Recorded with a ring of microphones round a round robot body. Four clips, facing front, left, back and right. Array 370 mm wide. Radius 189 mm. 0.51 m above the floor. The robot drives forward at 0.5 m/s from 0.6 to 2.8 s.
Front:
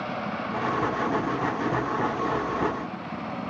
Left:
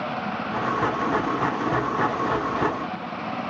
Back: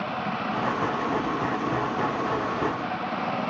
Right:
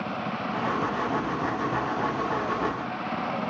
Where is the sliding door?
I don't hear a sliding door.